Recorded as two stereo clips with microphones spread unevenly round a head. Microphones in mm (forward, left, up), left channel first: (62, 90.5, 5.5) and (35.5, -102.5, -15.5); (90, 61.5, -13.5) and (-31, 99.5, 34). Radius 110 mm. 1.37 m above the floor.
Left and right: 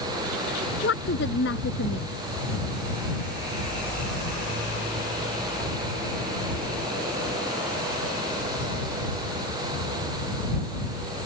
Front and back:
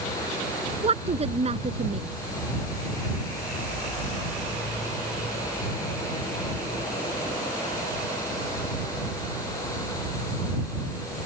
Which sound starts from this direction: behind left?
A woman speaking, at 0.8 s.